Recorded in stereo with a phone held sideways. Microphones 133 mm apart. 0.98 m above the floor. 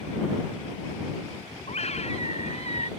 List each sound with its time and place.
1.7 s a scream: 55° left (ahead or behind)